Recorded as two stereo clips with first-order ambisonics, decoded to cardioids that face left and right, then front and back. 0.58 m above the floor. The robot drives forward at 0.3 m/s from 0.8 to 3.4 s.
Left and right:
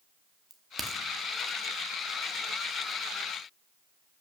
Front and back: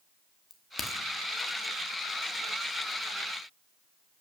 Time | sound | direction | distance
0.5 | a crack | 45° right | 0.8 m